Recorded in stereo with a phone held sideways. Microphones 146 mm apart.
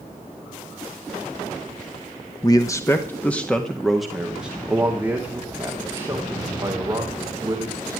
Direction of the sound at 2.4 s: 25° left (ahead or behind).